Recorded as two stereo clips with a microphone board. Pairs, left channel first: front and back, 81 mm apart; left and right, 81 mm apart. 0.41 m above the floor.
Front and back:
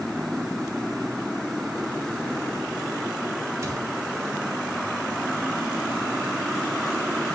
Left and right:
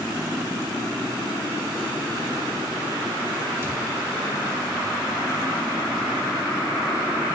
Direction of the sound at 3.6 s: 140° right.